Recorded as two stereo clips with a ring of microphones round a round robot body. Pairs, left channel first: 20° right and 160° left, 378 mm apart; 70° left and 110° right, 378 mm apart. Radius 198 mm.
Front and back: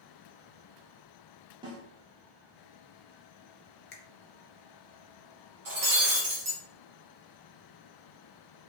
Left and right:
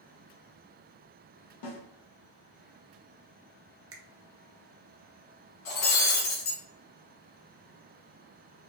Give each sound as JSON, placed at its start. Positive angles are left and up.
{"t": 1.6, "sound": "a snare drum", "azimuth_deg": 80, "distance_m": 1.1}
{"t": 3.9, "sound": "a finger snap", "azimuth_deg": -75, "distance_m": 0.8}
{"t": 5.7, "sound": "breaking glass", "azimuth_deg": 120, "distance_m": 1.8}